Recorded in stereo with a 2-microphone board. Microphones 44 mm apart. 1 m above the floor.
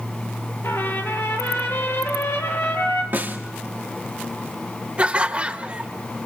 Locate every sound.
0.6 s a trumpet: 80° left, 4 m
3.1 s a snare drum: 45° right (ahead or behind), 1.9 m
5.0 s laughter: 30° right (ahead or behind), 1.4 m